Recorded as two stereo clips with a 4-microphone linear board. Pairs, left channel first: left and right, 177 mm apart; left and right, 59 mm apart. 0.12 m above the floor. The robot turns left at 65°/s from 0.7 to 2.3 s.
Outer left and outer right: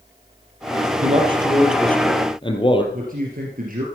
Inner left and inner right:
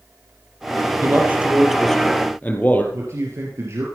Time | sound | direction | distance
1.0 | a man speaking | 130° right | 3 m
2.9 | a man speaking | 55° right (ahead or behind) | 2.5 m